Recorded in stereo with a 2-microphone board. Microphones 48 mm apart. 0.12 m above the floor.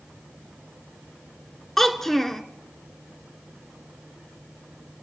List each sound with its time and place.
1.8 s a child speaking: 5° left (ahead or behind), 1.0 m